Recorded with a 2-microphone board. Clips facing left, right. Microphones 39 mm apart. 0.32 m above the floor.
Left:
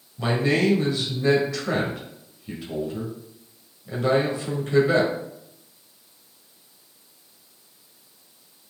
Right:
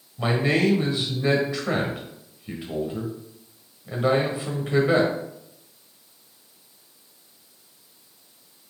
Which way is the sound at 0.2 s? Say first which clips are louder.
Even; 25° right (ahead or behind).